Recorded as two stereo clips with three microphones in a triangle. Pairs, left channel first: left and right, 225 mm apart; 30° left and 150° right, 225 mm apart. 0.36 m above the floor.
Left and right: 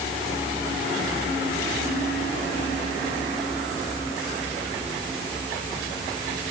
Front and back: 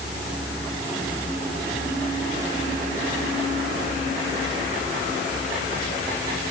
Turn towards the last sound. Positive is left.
No sound to turn to.